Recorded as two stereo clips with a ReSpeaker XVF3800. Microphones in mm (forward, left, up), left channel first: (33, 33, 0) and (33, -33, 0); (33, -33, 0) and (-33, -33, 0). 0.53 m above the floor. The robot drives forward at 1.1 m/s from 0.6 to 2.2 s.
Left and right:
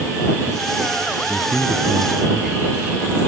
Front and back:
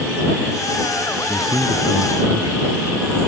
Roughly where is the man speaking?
Behind.